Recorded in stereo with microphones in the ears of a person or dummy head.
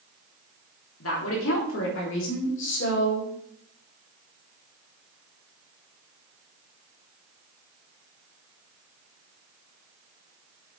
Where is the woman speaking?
80° left, 3.5 m; by 3.3 s 65° left (ahead or behind), 4 m.